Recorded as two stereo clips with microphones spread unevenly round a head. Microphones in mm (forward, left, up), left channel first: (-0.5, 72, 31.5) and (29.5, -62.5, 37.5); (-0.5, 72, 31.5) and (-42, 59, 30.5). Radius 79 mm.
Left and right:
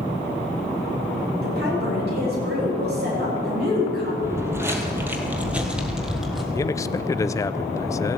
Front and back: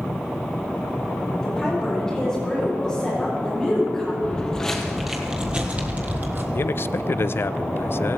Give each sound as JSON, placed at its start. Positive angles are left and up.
{"t": 1.4, "sound": "a woman speaking", "azimuth_deg": -70, "distance_m": 7.5}
{"t": 4.2, "sound": "footsteps", "azimuth_deg": -30, "distance_m": 1.4}
{"t": 6.5, "sound": "a man speaking", "azimuth_deg": 40, "distance_m": 0.6}